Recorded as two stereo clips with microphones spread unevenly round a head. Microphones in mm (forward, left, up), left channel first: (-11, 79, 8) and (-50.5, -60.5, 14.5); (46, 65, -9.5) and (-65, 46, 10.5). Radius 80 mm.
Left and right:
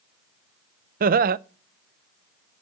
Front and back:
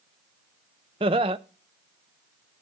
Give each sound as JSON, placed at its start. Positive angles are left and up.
{"t": 1.0, "sound": "laughter", "azimuth_deg": -110, "distance_m": 0.5}